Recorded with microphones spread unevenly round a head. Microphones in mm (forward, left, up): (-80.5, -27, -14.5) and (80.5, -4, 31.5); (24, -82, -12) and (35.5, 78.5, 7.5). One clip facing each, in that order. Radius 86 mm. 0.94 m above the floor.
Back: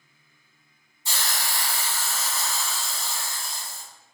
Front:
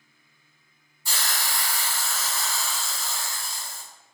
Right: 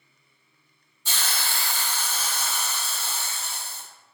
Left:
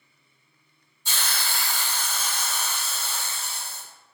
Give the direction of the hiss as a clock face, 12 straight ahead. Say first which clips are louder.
Even, even; 3 o'clock.